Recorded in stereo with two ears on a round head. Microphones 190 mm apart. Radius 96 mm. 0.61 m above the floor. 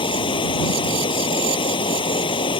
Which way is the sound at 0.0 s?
25° left (ahead or behind).